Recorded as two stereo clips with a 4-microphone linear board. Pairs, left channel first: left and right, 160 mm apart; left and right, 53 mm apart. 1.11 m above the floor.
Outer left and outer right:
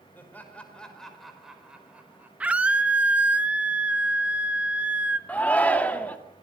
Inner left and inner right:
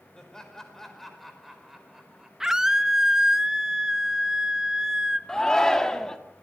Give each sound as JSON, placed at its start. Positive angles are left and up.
{"t": 0.1, "sound": "laughter", "side_deg": 15, "distance_m": 4.5}
{"t": 2.4, "sound": "a scream", "side_deg": -10, "distance_m": 1.5}
{"t": 5.3, "sound": "a shout", "side_deg": 10, "distance_m": 1.9}